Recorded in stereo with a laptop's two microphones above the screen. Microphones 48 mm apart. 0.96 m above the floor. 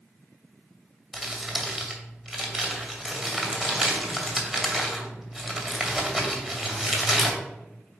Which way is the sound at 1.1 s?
10° right (ahead or behind).